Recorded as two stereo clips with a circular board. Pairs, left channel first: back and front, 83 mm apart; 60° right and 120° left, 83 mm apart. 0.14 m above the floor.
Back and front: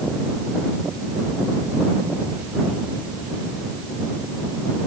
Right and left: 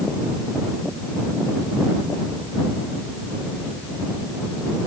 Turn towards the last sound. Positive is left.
No sound to turn to.